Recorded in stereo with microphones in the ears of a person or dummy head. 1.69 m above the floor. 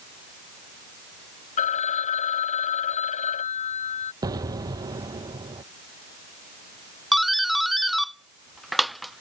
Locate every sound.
1.6 s a phone ringing: 35° left (ahead or behind)
4.2 s an explosion: 25° right (ahead or behind)
7.1 s a doorbell: 5° right (ahead or behind)